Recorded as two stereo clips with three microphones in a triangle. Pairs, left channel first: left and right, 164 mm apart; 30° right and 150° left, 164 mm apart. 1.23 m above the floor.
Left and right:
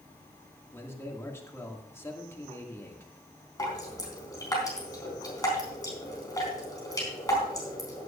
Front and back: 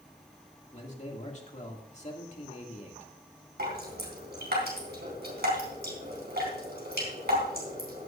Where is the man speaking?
15° left, 2.5 m.